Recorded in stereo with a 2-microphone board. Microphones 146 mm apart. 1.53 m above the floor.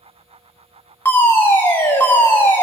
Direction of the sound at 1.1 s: 15° left (ahead or behind).